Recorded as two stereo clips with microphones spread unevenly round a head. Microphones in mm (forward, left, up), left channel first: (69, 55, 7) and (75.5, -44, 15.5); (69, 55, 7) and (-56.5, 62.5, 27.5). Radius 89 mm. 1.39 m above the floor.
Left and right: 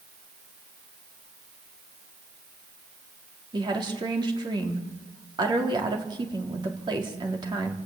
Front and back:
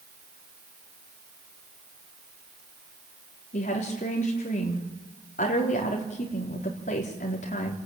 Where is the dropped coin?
No dropped coin in this recording.